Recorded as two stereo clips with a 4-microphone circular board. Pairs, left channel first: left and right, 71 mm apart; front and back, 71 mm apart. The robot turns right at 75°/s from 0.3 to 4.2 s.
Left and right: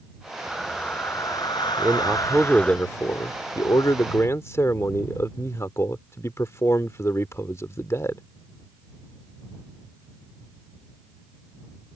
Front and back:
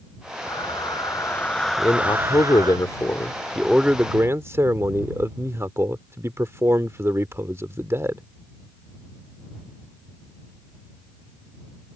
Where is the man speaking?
50° right; by 8.2 s 135° left.